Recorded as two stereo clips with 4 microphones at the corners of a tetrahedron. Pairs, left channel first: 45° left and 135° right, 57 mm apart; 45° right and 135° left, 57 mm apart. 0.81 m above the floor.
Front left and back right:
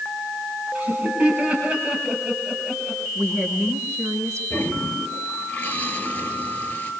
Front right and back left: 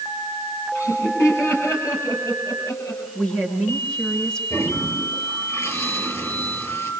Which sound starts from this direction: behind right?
A woman speaking, at 3.1 s.